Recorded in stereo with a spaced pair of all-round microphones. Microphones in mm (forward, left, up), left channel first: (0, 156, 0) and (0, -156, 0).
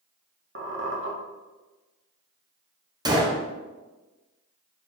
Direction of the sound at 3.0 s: 15° right (ahead or behind).